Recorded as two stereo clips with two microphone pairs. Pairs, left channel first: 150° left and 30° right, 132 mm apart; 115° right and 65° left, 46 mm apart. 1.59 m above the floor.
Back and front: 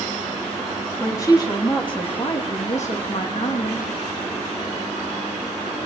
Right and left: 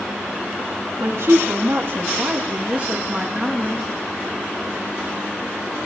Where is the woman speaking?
85° left, 2.5 m; by 3.9 s 150° left, 1.9 m.